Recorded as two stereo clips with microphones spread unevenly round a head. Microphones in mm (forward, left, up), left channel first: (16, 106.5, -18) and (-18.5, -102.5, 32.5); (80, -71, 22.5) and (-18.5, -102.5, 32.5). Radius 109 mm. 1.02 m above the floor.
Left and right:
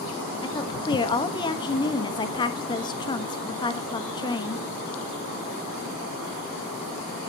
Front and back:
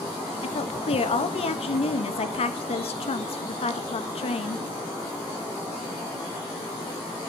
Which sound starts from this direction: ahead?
A woman speaking, at 0.4 s.